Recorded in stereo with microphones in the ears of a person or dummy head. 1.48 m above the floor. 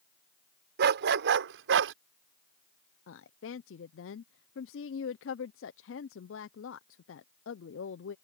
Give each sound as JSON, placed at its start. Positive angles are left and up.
{"t": 0.8, "sound": "a dog barking", "side_deg": -60}
{"t": 3.1, "sound": "a woman speaking", "side_deg": 60}